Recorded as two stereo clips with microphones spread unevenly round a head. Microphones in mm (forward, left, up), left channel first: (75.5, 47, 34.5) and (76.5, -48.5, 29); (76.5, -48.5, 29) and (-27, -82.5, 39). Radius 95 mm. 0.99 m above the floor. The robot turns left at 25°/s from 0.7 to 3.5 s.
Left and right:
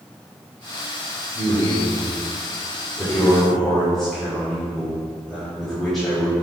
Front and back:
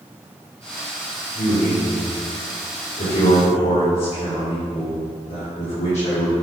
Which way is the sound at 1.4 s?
55° left.